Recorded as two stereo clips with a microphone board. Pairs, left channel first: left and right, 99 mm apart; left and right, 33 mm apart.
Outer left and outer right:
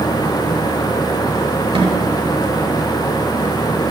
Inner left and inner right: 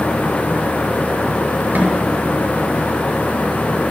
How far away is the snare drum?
About 6 m.